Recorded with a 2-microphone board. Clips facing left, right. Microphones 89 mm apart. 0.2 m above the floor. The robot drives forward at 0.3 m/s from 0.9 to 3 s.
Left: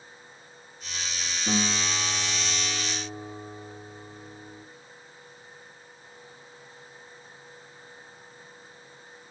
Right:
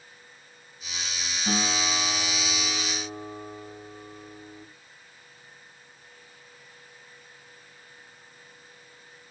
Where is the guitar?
50° right (ahead or behind), 2.5 m; by 4.6 s 45° right (ahead or behind), 2.5 m.